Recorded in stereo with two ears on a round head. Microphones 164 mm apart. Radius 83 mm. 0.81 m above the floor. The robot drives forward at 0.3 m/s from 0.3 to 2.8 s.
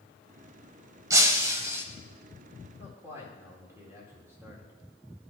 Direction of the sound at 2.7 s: 15° right (ahead or behind).